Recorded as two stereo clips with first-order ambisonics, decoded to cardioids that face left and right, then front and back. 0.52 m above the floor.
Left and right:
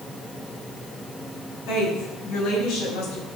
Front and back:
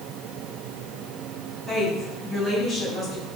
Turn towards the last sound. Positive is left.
turn(degrees=80)